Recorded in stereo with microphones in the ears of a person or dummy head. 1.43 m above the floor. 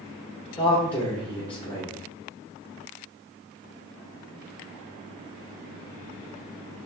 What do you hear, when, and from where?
0.6 s a man speaking: 5° left (ahead or behind), 2.5 m